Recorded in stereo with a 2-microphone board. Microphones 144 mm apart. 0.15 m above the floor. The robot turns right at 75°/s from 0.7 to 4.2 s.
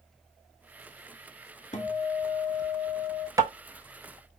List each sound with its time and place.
1.7 s a guitar: 110° left, 0.6 m; by 3.3 s 135° right, 0.6 m
3.4 s tapping: 25° right (ahead or behind), 0.6 m; by 3.5 s 15° right (ahead or behind), 0.6 m